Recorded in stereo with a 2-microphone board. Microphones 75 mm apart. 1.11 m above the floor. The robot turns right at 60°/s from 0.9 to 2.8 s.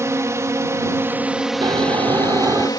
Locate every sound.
0.0 s a drone: 45° right; by 2.8 s 70° left
1.6 s snoring: 100° right; by 2.7 s 35° right